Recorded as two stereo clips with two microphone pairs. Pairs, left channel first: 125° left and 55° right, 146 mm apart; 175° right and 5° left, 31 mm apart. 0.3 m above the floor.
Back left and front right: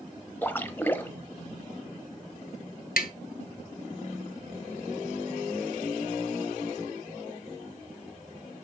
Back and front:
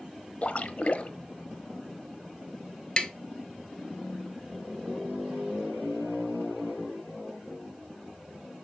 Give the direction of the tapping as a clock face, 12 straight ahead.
8 o'clock.